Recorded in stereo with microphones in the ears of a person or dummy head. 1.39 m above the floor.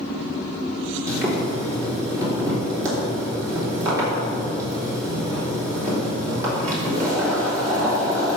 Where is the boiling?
15° right (ahead or behind), 3 m.